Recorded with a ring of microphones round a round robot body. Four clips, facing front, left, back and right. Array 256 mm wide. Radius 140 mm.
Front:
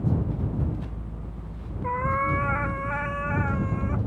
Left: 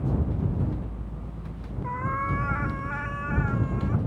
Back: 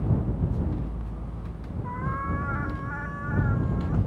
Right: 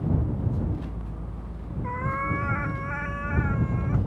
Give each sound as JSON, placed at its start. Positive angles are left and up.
{"t": 1.8, "sound": "a cat meowing", "azimuth_deg": -10}